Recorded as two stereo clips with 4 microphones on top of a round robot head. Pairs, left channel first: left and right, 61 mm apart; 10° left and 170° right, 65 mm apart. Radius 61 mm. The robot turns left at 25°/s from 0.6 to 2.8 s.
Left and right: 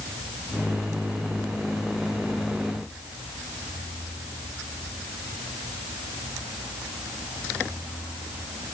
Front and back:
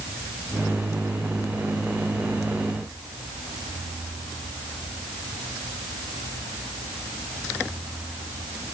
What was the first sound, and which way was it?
Only background noise.